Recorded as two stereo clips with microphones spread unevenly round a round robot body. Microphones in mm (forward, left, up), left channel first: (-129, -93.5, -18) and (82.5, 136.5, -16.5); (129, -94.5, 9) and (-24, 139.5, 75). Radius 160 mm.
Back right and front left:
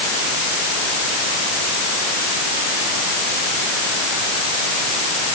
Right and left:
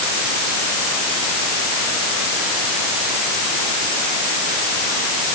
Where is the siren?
No siren in this recording.